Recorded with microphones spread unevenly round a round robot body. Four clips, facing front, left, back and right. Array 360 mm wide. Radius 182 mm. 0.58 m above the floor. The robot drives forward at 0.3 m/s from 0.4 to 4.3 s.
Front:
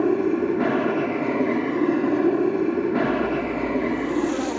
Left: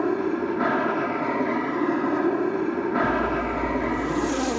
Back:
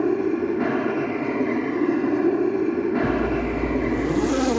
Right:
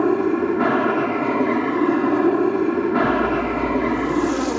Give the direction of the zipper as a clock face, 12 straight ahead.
6 o'clock.